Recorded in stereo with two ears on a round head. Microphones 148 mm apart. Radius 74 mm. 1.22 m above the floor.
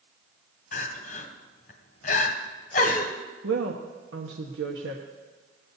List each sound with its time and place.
0.7 s crying: 55° left (ahead or behind), 1.6 m
3.4 s a woman speaking: 85° right, 1.3 m